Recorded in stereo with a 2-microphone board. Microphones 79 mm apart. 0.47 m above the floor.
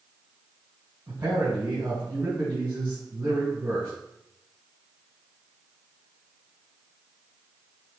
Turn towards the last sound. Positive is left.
turn(degrees=-35)  # may be behind; listen again after turning